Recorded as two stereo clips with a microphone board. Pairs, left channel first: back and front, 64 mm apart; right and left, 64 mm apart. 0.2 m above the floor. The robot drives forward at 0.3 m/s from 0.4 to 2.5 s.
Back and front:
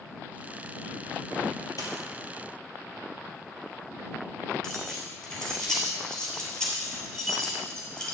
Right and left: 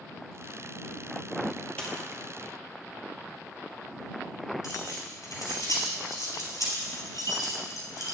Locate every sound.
1.8 s a dropped coin: 160° right, 2.5 m
4.6 s keys jangling: 100° right, 3 m